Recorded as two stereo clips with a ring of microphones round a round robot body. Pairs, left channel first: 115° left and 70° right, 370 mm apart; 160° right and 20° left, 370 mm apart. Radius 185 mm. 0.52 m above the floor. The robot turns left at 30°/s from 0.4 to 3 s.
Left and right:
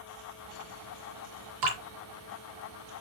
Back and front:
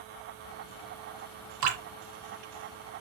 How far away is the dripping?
About 3 m.